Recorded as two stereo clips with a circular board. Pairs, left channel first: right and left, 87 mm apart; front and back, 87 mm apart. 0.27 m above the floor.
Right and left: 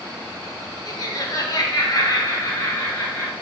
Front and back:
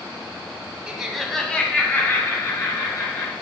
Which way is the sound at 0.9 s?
105° right.